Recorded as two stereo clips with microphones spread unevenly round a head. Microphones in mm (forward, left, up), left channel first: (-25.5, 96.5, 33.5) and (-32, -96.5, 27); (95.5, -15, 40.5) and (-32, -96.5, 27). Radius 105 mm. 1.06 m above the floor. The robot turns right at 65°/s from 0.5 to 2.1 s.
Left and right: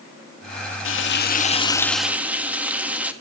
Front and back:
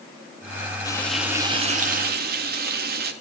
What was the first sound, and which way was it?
Frying, 105° left.